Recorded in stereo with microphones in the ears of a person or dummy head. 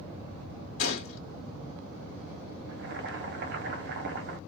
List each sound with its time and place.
0.8 s a gunshot: 50° left (ahead or behind), 1.5 m
2.7 s boiling: 50° right (ahead or behind), 0.8 m